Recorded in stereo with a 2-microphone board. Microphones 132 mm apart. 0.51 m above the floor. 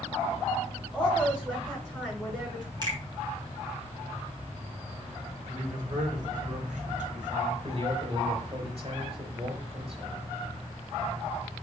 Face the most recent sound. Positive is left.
turn(degrees=-45)  # may be behind; listen again after turning